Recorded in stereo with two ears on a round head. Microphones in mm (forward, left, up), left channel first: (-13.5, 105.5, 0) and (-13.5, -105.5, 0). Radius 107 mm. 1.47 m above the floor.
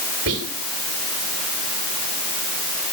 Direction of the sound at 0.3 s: 80° right.